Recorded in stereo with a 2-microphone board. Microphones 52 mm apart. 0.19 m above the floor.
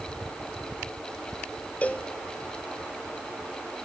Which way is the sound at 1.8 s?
25° left (ahead or behind).